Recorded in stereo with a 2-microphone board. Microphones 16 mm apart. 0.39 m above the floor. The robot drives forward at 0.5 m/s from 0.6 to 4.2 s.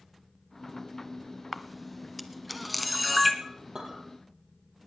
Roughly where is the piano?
I don't hear a piano.